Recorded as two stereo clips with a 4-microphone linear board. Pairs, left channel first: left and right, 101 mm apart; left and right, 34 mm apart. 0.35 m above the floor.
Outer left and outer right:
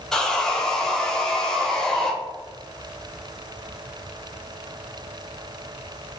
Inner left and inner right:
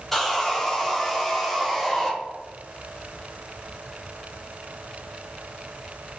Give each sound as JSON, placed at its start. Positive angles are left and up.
{"t": 0.1, "sound": "sawing", "side_deg": 5, "distance_m": 0.5}